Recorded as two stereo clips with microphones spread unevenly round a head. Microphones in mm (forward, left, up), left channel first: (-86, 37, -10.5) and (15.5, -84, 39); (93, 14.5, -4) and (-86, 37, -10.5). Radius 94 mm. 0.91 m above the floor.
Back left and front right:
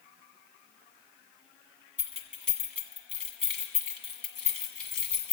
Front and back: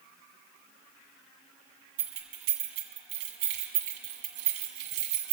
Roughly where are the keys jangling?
Behind right.